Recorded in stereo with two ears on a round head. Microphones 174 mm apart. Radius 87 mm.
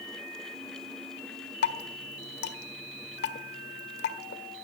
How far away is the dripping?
About 1.6 m.